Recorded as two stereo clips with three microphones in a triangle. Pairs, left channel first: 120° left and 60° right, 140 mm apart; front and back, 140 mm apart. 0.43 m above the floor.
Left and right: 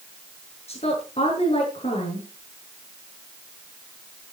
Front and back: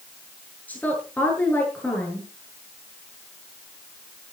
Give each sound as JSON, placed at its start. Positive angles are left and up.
{"t": 0.7, "sound": "a woman speaking", "azimuth_deg": 80, "distance_m": 8.0}